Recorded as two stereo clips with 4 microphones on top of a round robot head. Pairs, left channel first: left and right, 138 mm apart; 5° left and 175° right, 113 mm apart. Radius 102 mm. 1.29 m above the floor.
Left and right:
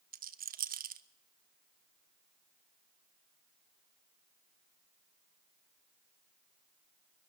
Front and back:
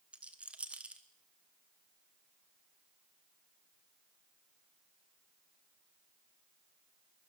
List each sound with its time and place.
0.1 s a rattle: 95° right, 1.2 m